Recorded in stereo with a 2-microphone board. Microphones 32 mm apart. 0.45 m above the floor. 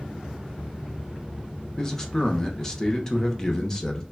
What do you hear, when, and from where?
1.8 s a man speaking: 20° left (ahead or behind), 0.9 m